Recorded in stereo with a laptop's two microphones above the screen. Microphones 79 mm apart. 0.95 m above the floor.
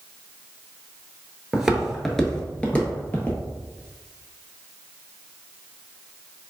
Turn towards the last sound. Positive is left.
turn(degrees=25)  # may be behind; listen again after turning